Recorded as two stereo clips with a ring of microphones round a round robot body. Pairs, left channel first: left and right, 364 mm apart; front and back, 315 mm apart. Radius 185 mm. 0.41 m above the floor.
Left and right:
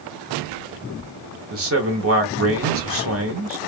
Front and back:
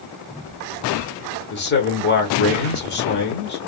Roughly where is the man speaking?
Ahead right.